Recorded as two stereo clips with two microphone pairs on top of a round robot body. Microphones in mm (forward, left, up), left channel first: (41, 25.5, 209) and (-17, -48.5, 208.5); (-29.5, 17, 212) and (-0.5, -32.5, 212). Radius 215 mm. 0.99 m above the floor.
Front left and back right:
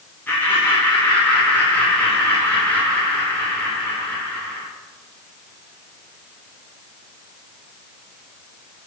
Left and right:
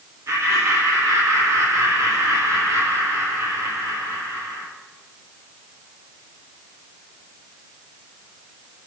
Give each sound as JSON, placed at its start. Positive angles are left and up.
{"t": 0.3, "sound": "laughter", "azimuth_deg": -20, "distance_m": 1.5}